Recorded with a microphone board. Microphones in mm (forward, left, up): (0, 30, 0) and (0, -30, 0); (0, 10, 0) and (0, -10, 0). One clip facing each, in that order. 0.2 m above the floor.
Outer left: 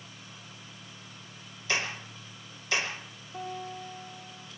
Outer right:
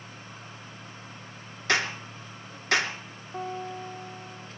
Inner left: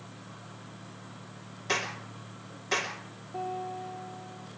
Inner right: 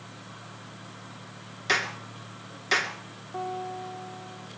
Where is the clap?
65° right (ahead or behind), 2.5 m.